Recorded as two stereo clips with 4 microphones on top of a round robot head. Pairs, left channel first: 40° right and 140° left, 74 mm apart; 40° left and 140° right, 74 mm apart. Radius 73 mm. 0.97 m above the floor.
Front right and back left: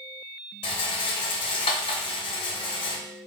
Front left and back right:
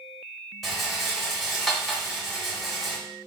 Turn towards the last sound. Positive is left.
turn(degrees=-50)